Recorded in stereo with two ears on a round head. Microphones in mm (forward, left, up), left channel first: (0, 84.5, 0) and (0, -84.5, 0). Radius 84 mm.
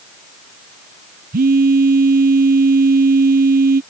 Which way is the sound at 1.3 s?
50° right (ahead or behind).